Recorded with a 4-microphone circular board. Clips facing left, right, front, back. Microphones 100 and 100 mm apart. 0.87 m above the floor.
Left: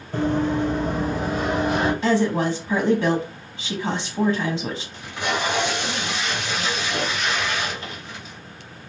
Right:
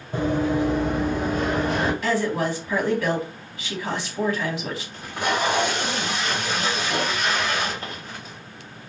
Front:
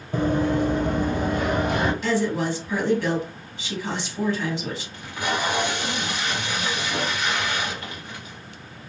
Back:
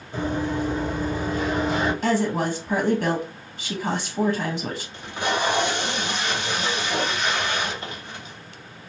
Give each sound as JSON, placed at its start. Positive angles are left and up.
{"t": 0.1, "sound": "running footsteps", "azimuth_deg": -15, "distance_m": 1.4}
{"t": 2.0, "sound": "a woman speaking", "azimuth_deg": 150, "distance_m": 0.8}
{"t": 4.9, "sound": "tape being pulled", "azimuth_deg": -125, "distance_m": 1.5}